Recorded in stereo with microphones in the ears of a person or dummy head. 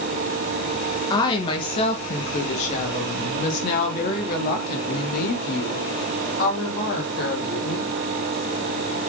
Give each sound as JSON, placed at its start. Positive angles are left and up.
{"t": 1.1, "sound": "a woman speaking", "side_deg": 20, "distance_m": 1.5}